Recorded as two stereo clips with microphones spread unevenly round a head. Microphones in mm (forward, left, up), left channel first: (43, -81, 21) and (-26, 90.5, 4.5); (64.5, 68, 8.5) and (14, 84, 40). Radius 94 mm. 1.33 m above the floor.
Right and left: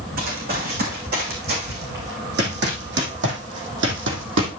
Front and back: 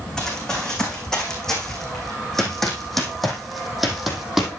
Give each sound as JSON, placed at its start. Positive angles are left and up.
{"t": 0.2, "sound": "running footsteps", "azimuth_deg": 70, "distance_m": 4.5}